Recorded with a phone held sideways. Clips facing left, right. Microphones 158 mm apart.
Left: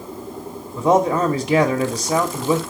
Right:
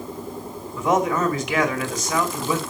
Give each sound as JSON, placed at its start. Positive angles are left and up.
{"t": 0.8, "sound": "a man speaking", "side_deg": 35, "distance_m": 2.5}